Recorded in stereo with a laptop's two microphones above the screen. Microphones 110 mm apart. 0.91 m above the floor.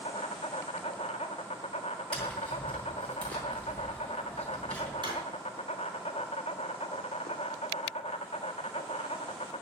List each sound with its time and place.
0.0 s an insect: 80° left, 1.2 m
2.1 s tapping: 10° left (ahead or behind), 3 m
5.0 s a drawer: 45° right (ahead or behind), 4.5 m